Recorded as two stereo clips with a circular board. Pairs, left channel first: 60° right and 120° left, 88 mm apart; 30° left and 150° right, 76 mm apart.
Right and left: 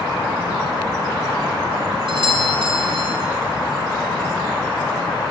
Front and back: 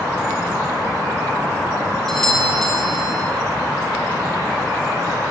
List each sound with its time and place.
2.1 s a doorbell: 115° left, 5 m